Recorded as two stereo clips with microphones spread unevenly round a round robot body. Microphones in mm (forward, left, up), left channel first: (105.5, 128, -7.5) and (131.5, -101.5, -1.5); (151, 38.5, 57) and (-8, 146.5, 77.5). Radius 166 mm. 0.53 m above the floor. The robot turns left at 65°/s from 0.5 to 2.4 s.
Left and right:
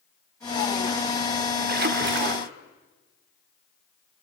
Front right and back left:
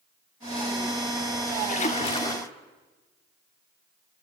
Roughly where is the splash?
Ahead right.